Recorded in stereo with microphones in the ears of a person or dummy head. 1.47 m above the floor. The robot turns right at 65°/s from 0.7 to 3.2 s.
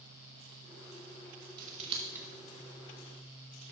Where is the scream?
No scream in this recording.